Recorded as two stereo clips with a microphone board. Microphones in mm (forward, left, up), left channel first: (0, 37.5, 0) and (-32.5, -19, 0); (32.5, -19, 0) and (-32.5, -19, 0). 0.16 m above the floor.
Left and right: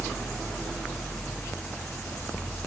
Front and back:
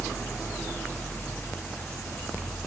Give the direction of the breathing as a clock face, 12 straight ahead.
I don't hear breathing.